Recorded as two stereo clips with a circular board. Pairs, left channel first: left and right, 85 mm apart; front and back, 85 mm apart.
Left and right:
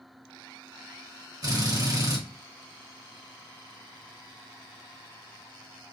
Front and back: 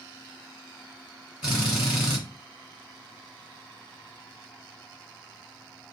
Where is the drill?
100° right, 2.5 m.